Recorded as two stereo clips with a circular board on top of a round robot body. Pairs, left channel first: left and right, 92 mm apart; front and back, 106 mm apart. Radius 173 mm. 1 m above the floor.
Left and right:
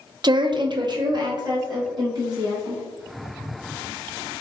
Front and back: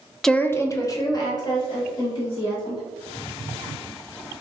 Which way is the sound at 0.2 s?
85° right.